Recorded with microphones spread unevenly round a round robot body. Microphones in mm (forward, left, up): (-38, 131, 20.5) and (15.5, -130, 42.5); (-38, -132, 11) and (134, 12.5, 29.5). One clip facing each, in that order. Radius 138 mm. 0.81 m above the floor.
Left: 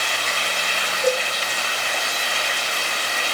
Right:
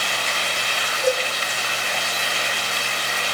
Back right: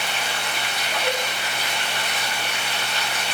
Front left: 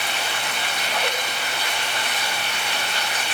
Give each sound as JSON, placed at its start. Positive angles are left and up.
{"t": 1.0, "sound": "a cowbell", "azimuth_deg": 30, "distance_m": 7.0}